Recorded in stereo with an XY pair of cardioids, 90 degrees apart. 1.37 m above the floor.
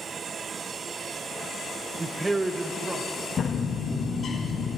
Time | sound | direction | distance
2.0 | a man speaking | 25° right | 0.6 m
3.4 | a bird | 55° left | 6 m